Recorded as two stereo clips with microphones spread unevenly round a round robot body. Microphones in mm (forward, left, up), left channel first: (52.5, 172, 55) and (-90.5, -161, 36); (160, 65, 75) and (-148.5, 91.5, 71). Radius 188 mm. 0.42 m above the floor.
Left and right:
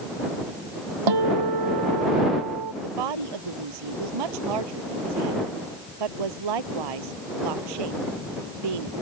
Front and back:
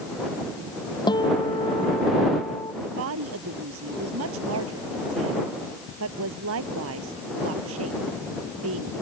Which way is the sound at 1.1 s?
85° right.